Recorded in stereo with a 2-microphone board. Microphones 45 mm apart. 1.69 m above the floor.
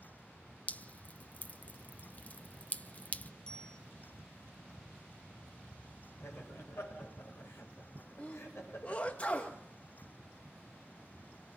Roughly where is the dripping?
Left.